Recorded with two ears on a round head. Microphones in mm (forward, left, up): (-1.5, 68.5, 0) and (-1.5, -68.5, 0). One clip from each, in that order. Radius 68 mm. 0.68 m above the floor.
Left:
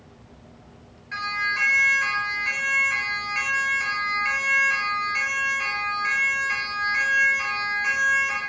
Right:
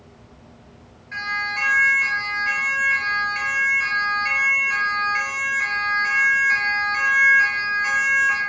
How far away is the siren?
About 9.5 m.